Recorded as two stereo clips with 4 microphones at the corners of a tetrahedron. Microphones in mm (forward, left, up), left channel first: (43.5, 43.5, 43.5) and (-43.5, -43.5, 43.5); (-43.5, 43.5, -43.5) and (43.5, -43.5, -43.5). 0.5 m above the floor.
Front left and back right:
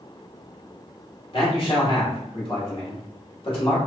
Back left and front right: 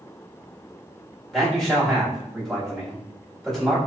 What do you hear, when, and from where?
1.3 s a man speaking: 50° left, 1.3 m